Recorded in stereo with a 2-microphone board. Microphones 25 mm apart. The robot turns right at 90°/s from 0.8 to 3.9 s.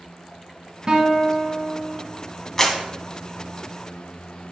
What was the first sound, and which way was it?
A guitar, 65° right.